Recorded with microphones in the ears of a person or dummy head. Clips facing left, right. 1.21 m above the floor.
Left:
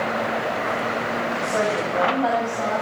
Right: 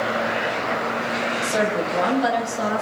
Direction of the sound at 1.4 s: 25° right (ahead or behind).